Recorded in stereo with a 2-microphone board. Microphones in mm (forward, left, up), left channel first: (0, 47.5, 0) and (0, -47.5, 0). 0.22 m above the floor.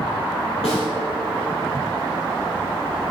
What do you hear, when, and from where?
0.6 s a snare drum: 80° left, 3 m